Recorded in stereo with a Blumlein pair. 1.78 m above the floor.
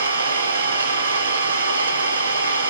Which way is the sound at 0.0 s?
65° right.